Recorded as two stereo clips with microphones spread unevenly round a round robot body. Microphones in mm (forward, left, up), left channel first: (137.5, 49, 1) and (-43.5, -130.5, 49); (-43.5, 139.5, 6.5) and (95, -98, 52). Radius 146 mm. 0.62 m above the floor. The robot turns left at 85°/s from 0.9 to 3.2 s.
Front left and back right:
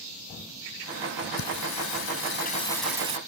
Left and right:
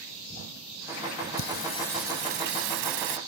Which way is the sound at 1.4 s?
80° left.